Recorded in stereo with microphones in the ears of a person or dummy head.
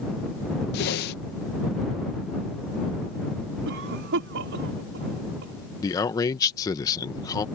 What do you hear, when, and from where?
0.7 s a whoosh: 55° left (ahead or behind)
3.6 s a cough: 65° right (ahead or behind)
5.8 s a man speaking: 20° left (ahead or behind)